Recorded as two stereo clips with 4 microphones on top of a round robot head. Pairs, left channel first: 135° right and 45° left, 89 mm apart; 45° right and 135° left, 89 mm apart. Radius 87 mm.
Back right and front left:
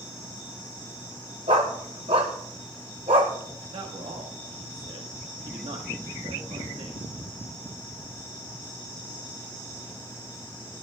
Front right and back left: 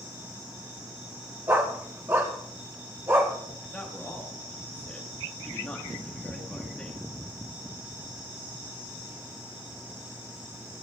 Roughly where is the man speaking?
Ahead left.